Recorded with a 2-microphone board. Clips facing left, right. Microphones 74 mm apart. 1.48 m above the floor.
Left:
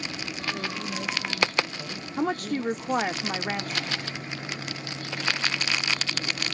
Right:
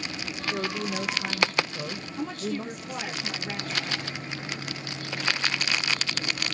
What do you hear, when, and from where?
0.5 s a woman speaking: 65° right (ahead or behind), 1.6 m; by 3.2 s 70° right (ahead or behind), 2.0 m
2.2 s a woman speaking: 55° left (ahead or behind), 0.6 m